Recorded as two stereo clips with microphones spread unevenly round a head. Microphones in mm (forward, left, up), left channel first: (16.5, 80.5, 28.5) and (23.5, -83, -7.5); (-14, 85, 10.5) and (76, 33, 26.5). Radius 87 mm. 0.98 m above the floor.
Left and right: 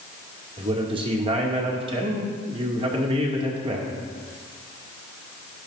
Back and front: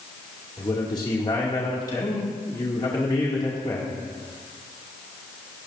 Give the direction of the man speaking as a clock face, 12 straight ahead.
5 o'clock.